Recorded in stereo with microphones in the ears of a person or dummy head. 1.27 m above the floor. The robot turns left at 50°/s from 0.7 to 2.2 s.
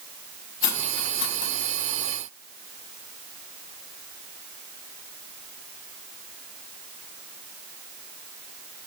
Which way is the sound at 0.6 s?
60° left (ahead or behind).